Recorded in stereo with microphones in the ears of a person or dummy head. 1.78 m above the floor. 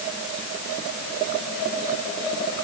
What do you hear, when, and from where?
Only background noise.